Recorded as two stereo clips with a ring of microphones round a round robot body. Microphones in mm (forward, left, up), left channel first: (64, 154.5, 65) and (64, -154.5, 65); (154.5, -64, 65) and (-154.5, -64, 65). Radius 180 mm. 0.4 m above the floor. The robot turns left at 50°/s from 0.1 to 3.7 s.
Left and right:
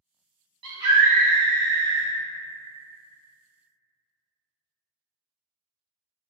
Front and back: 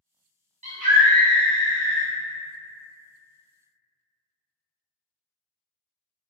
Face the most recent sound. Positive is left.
turn(degrees=60)